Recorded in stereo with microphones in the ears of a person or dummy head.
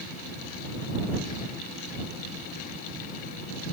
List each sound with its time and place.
Only background noise.